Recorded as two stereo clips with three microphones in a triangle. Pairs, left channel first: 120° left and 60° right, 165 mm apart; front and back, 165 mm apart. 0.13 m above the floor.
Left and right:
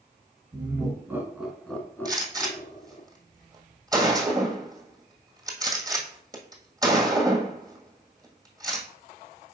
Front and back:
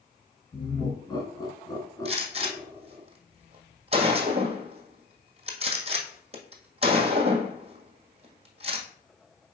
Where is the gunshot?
125° right, 1.8 m.